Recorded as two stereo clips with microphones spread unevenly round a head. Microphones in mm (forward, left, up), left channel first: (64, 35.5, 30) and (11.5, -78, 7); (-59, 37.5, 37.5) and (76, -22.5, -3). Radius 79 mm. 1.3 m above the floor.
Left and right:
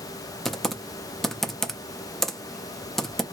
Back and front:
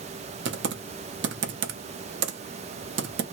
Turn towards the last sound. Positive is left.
turn(degrees=-20)